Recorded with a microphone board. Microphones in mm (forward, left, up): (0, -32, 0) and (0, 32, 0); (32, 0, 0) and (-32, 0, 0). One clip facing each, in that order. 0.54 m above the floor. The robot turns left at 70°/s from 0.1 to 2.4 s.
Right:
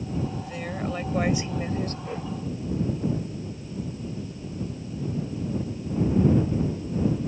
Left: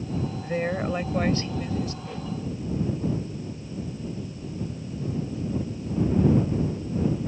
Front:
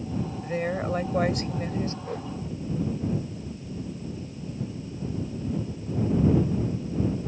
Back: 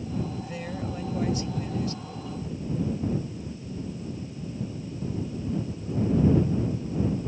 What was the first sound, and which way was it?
A woman speaking, 50° left.